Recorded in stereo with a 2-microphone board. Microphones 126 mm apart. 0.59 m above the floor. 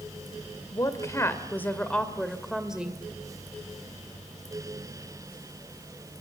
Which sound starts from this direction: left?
A woman speaking, at 0.7 s.